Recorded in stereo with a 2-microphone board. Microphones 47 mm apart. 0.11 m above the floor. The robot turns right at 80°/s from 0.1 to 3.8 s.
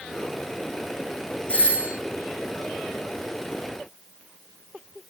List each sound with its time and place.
1.5 s a doorbell: 30° left, 3.5 m; by 1.9 s 65° left, 3.5 m